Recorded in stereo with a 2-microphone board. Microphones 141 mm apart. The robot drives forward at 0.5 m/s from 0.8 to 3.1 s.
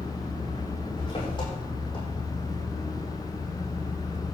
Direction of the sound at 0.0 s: 40° left (ahead or behind).